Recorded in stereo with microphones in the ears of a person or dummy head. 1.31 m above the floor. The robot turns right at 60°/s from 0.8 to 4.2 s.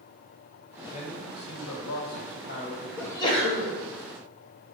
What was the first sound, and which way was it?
A man speaking, 35° left.